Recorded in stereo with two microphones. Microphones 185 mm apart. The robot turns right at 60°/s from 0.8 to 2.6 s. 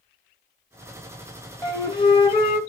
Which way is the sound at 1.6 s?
20° left (ahead or behind).